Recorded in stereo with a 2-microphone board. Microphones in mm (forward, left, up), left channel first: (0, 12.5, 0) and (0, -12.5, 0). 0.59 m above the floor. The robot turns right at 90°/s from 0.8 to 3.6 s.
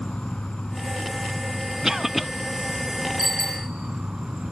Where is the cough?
15° right (ahead or behind), 0.6 m; by 2.3 s centre (ahead or behind), 0.6 m.